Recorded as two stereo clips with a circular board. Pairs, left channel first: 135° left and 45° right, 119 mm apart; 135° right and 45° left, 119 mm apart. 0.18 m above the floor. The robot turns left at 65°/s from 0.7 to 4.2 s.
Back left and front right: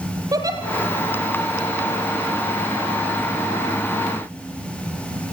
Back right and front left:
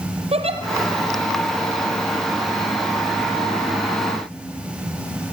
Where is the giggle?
15° left, 4 m.